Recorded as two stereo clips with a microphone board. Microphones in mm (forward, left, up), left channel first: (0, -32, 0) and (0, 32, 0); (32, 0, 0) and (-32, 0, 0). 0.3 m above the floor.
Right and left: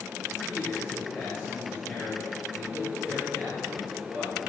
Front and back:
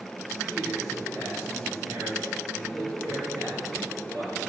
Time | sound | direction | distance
0.3 | a man speaking | 140° right | 6.5 m